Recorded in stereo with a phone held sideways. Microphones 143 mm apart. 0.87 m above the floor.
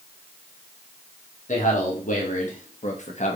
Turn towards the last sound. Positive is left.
turn(degrees=50)  # may be behind; listen again after turning